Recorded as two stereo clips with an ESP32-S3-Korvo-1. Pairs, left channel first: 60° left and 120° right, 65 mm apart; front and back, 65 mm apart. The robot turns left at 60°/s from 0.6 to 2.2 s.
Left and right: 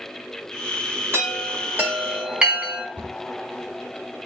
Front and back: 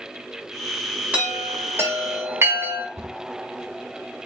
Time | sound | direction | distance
1.1 | a chime | 120° right | 1.7 m
3.0 | a cupboard door | straight behind | 1.5 m